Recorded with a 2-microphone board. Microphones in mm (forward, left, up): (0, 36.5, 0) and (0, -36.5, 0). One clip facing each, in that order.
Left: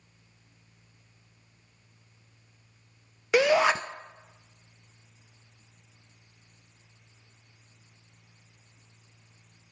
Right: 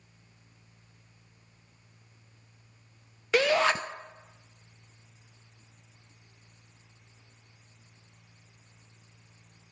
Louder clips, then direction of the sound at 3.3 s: Left 3 dB; 15° left (ahead or behind).